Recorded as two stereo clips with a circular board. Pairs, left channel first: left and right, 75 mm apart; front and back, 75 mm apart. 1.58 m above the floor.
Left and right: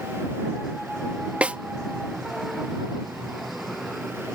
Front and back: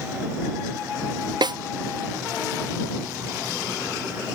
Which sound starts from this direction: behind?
A snare drum, at 1.4 s.